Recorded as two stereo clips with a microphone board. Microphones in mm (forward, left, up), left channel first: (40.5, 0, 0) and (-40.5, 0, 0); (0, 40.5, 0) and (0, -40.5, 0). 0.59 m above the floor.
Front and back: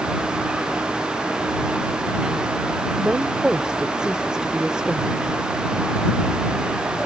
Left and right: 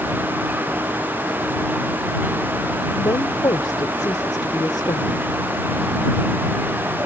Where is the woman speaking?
100° left.